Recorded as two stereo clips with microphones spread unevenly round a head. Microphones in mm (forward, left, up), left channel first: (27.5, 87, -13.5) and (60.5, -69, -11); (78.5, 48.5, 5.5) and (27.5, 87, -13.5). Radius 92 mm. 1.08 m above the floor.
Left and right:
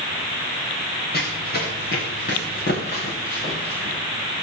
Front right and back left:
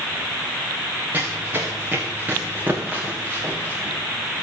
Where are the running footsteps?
80° left, 7 m; by 4.0 s 75° left, 8.5 m.